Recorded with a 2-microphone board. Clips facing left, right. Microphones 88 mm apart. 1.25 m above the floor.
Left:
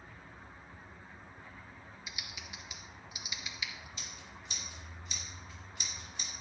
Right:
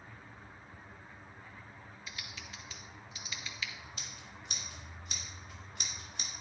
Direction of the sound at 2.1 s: 15° left (ahead or behind).